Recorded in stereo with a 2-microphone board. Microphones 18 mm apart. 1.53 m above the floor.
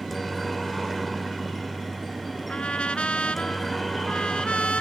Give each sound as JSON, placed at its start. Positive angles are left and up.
{"t": 0.0, "sound": "a helicopter", "side_deg": 5}
{"t": 2.5, "sound": "a trumpet", "side_deg": 80}